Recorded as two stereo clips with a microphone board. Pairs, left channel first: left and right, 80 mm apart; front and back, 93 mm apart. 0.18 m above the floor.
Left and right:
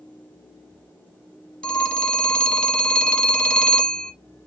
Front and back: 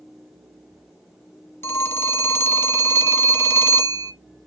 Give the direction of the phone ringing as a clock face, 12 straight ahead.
11 o'clock.